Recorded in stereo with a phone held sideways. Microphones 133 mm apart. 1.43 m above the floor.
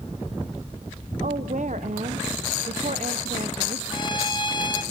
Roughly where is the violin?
Left.